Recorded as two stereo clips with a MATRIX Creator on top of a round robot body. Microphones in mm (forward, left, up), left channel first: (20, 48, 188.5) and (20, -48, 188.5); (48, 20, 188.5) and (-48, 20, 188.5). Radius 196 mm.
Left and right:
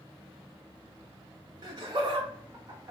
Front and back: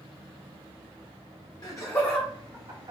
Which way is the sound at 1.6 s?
45° right.